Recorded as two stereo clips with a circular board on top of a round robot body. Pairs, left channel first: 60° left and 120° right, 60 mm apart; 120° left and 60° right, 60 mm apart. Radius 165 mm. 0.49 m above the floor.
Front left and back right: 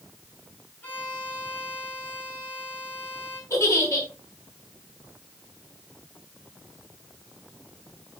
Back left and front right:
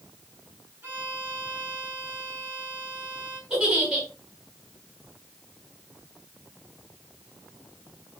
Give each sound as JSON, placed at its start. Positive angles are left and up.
{"t": 0.8, "sound": "a violin", "azimuth_deg": 5, "distance_m": 5.0}
{"t": 3.5, "sound": "a giggle", "azimuth_deg": 20, "distance_m": 5.5}